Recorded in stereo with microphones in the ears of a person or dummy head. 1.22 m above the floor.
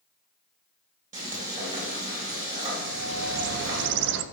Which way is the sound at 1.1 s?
40° right (ahead or behind).